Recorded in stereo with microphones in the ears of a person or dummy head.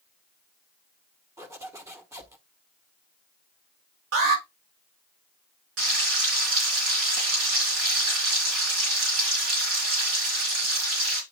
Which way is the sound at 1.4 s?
15° right (ahead or behind).